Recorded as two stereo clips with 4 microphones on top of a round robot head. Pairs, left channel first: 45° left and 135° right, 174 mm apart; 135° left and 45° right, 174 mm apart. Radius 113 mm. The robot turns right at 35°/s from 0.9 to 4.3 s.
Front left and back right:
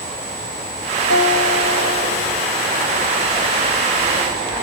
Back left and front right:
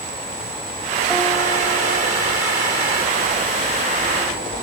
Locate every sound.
1.1 s a guitar: 50° left, 2.5 m; by 2.5 s 95° left, 2.5 m